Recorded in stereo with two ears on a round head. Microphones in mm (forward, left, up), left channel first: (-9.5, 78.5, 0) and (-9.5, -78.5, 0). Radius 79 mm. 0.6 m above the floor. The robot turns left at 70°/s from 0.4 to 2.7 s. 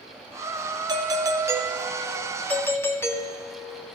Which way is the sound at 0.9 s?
25° right (ahead or behind).